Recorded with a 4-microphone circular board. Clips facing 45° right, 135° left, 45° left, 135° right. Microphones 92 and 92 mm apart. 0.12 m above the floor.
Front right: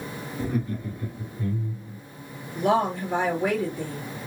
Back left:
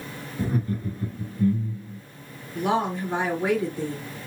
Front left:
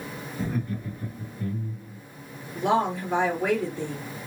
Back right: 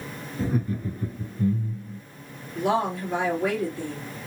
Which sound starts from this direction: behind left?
Laughter, at 0.4 s.